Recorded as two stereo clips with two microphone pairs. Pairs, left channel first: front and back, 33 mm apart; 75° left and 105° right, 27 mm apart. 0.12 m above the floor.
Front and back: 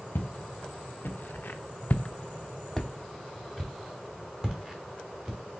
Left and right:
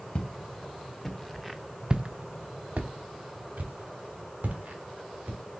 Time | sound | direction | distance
0.1 | footsteps | 25° left | 1.0 m